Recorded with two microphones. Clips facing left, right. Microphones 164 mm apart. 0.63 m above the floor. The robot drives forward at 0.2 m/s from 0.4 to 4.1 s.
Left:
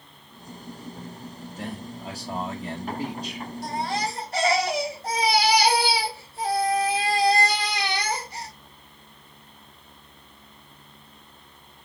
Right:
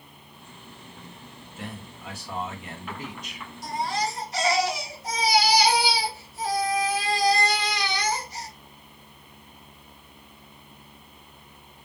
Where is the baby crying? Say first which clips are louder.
Even; 65° left (ahead or behind), 1.1 m; by 8.5 s 60° left (ahead or behind), 1.1 m.